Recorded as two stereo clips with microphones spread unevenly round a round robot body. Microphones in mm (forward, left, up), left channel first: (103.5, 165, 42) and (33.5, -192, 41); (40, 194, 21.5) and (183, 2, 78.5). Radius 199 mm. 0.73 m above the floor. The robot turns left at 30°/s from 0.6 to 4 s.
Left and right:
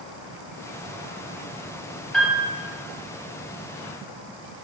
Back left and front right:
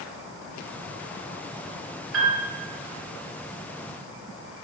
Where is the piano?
10° right, 0.6 m; by 2.5 s 20° right, 0.6 m.